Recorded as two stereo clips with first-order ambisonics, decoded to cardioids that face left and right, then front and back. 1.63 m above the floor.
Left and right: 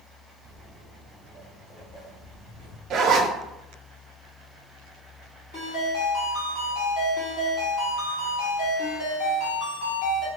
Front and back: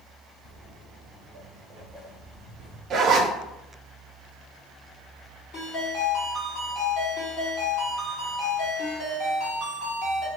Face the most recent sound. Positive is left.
turn(degrees=50)